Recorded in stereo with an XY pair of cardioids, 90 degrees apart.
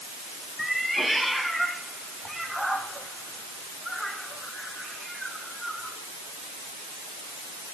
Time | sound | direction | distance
0.6 | a cat meowing | 5° left | 3.5 m